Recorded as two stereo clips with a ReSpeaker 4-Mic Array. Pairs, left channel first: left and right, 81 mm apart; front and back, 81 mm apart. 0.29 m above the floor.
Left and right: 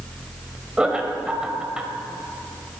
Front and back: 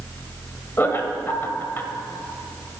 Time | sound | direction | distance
0.8 | laughter | 20° right | 1.2 m